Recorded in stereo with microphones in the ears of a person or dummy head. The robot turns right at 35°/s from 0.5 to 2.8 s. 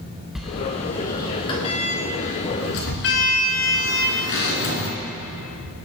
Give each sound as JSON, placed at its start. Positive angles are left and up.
{"t": 0.3, "sound": "a sliding door", "side_deg": -5, "distance_m": 2.0}